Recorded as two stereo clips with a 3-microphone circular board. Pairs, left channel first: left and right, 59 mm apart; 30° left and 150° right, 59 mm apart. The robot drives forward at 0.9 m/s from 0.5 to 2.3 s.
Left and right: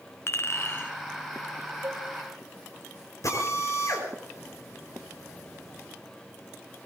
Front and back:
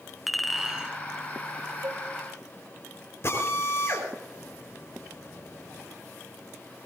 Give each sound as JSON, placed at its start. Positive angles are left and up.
{"t": 0.3, "sound": "a clink", "azimuth_deg": 120, "distance_m": 0.9}
{"t": 1.8, "sound": "dishes clattering", "azimuth_deg": -135, "distance_m": 3.0}
{"t": 3.2, "sound": "a drill", "azimuth_deg": 70, "distance_m": 5.5}